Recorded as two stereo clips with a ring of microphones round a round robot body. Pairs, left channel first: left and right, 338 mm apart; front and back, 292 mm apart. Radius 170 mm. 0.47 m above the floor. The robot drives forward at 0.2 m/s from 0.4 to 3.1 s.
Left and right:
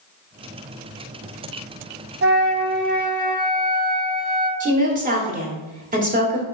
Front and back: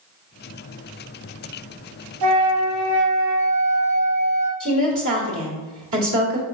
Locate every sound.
2.2 s a flute: 145° right, 0.6 m; by 4.5 s 155° right, 0.7 m
4.6 s a woman speaking: 150° right, 1.2 m